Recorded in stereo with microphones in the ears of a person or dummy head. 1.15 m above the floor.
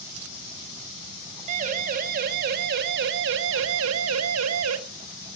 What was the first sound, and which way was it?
A siren, 45° right (ahead or behind).